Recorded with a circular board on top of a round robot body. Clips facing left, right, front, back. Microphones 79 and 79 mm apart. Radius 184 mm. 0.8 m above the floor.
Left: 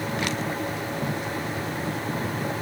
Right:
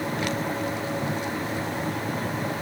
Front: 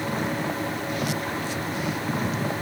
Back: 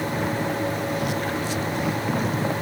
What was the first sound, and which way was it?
Only background noise.